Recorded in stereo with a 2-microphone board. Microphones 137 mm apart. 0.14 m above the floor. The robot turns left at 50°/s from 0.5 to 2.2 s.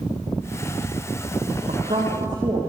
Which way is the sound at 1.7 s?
60° right (ahead or behind).